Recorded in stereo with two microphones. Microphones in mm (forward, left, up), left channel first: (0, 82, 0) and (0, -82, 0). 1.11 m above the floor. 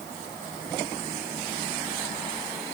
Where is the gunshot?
No gunshot in this recording.